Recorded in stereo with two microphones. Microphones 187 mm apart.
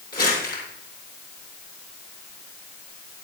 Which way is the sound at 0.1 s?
60° left (ahead or behind).